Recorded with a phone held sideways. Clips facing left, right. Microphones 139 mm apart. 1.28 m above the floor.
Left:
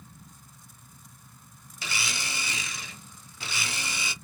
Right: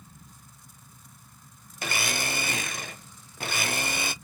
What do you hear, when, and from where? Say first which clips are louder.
1.8 s a blender: right 5 dB; 55° right (ahead or behind), 0.5 m